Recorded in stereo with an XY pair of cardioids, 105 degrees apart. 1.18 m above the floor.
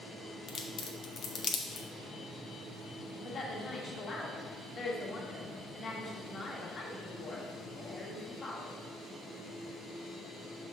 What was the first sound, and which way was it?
A crack, 50° left.